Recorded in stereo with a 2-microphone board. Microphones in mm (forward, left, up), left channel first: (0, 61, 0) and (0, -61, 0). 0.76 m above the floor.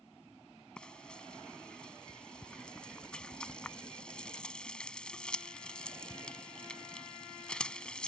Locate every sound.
0.8 s frying: 5° left (ahead or behind)